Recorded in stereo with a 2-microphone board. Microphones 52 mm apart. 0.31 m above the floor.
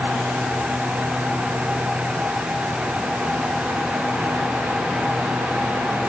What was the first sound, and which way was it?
Only background noise.